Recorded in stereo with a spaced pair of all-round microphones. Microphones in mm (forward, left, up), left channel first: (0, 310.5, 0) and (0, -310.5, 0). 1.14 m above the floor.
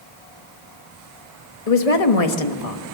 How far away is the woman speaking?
About 1.4 m.